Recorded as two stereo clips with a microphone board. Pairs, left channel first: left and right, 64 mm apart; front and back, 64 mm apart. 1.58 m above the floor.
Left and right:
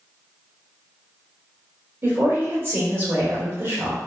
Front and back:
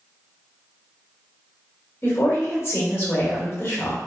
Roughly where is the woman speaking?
Ahead right.